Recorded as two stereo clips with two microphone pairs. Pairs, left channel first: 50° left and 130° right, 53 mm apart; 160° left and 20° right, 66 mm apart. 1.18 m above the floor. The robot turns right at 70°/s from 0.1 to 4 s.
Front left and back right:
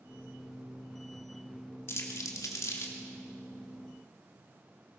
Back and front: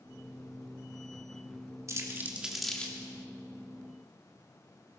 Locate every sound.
1.9 s crumpling: 15° left, 3 m; by 2.9 s 90° left, 3 m